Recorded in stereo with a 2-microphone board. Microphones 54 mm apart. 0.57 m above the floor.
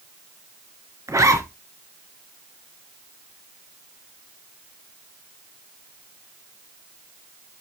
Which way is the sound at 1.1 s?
75° right (ahead or behind).